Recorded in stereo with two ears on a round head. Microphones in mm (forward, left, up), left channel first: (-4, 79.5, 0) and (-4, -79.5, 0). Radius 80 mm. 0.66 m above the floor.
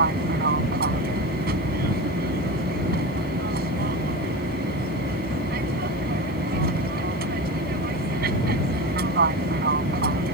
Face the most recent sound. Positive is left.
turn(degrees=-60)  # may be behind; listen again after turning